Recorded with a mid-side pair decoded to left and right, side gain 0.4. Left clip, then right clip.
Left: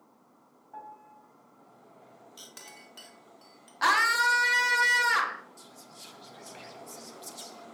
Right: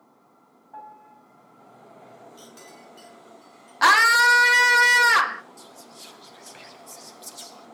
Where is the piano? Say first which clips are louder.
Right 3 dB; 10° right, 3 m.